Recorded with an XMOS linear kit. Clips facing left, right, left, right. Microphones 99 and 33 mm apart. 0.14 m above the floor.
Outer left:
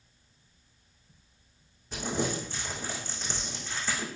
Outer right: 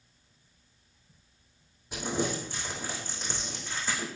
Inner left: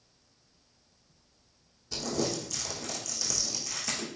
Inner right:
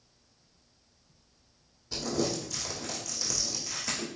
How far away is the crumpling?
About 3.5 m.